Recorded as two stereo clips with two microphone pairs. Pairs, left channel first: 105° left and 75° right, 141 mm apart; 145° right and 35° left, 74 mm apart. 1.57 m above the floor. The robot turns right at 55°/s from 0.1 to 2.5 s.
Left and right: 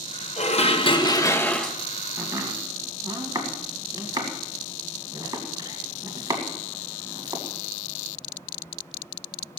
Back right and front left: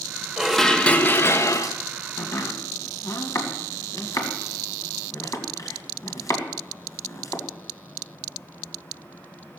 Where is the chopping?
150° right, 2 m; by 7.4 s 130° right, 2 m.